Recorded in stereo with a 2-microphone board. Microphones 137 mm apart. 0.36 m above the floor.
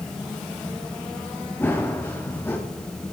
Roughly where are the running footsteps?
Centre.